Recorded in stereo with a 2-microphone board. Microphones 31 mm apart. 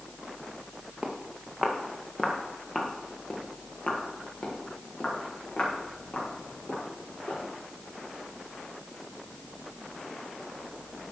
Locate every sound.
1.0 s footsteps: 15° right (ahead or behind), 3 m; by 7.4 s 55° left (ahead or behind), 7.5 m